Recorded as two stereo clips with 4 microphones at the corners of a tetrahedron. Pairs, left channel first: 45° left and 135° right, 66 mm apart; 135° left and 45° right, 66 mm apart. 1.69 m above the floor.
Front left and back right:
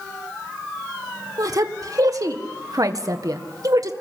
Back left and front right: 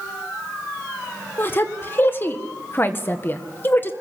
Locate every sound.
1.4 s a woman speaking: 170° right, 1.7 m